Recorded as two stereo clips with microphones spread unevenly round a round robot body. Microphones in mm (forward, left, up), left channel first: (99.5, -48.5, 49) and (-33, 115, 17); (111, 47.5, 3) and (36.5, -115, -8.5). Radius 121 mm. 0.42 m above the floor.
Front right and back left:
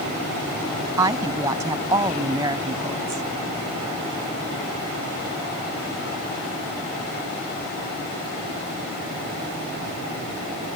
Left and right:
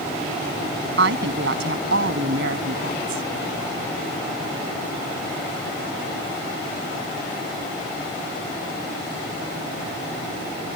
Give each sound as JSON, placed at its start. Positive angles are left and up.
{"t": 1.0, "sound": "a woman speaking", "azimuth_deg": -155}